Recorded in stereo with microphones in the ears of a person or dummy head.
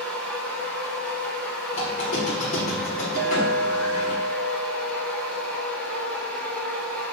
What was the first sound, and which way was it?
A machine running, 10° left (ahead or behind).